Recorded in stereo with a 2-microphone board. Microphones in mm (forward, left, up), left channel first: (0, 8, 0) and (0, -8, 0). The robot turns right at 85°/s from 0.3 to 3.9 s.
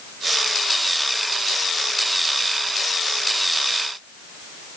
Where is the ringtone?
I don't hear a ringtone.